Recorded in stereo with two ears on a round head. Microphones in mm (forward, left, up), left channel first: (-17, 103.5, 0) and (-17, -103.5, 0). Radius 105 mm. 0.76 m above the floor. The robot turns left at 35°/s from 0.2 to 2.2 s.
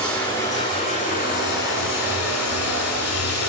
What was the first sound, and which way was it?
Running water, 175° left.